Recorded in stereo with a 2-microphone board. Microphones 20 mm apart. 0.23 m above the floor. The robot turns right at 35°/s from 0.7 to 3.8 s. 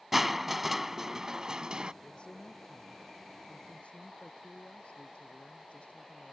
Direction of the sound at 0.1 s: 165° right.